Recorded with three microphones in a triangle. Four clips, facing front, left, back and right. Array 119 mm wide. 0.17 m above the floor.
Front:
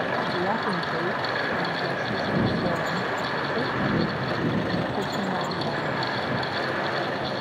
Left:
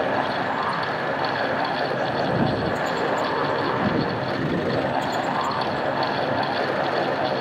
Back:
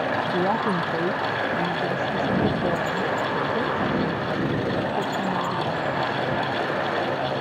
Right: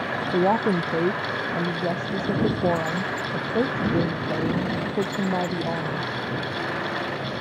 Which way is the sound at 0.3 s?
105° right.